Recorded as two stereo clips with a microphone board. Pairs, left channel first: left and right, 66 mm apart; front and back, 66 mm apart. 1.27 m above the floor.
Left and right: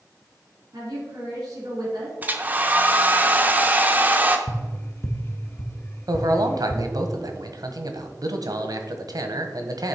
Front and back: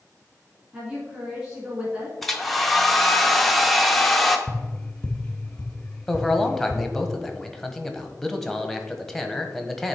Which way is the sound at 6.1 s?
85° right.